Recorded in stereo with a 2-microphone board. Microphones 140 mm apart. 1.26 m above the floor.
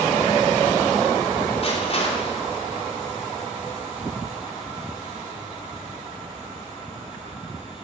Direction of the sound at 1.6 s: 45° left (ahead or behind).